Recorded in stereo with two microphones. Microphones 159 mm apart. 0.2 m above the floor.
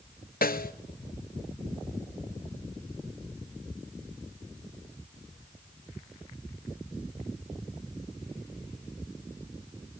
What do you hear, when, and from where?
0.4 s a snare drum: 70° left (ahead or behind), 0.6 m